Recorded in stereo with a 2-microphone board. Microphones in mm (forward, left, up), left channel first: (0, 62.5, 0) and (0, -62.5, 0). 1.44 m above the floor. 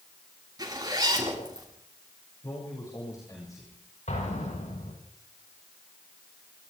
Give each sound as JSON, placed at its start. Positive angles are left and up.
{"t": 0.6, "sound": "a zipper", "side_deg": -30, "distance_m": 9.0}
{"t": 2.4, "sound": "a man speaking", "side_deg": 30, "distance_m": 7.0}
{"t": 4.1, "sound": "an explosion", "side_deg": 80, "distance_m": 8.5}